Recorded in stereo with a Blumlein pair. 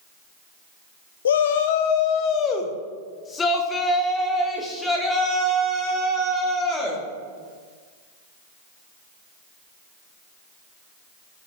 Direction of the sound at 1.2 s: 65° left.